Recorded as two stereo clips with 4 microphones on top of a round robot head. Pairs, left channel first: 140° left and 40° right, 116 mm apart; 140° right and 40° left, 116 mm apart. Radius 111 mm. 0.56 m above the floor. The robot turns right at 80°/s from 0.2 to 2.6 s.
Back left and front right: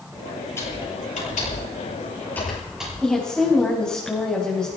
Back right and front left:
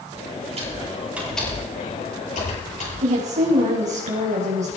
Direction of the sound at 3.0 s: 55° left.